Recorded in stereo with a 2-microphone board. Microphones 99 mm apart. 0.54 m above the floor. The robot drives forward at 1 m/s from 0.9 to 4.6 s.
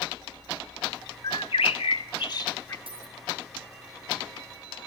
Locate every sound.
1.2 s a bird: 60° left (ahead or behind), 0.8 m; by 2.8 s 35° left (ahead or behind), 1.3 m
2.9 s a dropped coin: 65° right (ahead or behind), 1.3 m; by 3.2 s 60° right (ahead or behind), 1.4 m